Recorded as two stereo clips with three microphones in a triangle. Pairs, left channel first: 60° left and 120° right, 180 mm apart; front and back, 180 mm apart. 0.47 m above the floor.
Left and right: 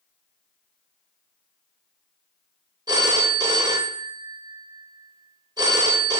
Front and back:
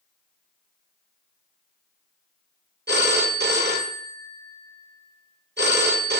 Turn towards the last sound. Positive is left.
turn(degrees=175)